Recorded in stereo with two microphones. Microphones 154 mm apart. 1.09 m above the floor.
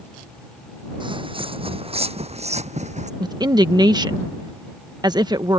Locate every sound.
1.0 s footsteps: 30° right (ahead or behind); by 3.1 s 50° right (ahead or behind)
3.2 s a woman speaking: 25° right (ahead or behind)